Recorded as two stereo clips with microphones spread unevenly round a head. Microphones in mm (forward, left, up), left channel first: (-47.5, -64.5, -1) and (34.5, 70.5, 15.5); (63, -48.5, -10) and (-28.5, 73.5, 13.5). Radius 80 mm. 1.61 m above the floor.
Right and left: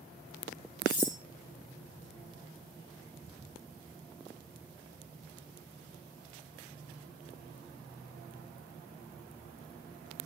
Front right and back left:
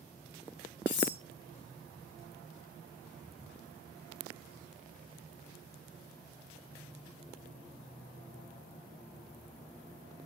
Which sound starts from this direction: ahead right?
Cutlery clinking, at 0.9 s.